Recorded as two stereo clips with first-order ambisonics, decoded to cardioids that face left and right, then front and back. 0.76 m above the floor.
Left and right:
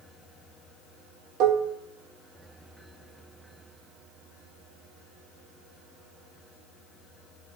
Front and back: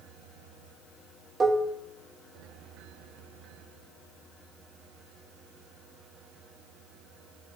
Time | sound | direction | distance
1.4 | dishes clattering | 110° right | 1.0 m